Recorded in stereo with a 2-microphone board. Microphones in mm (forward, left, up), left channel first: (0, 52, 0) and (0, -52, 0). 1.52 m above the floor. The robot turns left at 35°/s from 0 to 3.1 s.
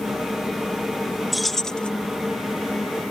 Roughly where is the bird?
I don't hear a bird.